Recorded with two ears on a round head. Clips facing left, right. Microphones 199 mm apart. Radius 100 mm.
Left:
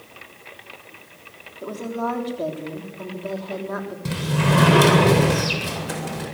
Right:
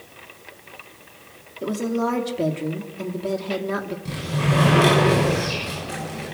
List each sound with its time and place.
1.6 s a woman speaking: 35° right (ahead or behind), 3.5 m
4.0 s a sliding door: 75° left (ahead or behind), 7.5 m